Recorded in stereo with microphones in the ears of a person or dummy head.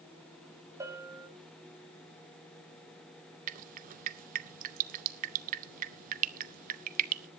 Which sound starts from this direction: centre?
A bell, at 0.8 s.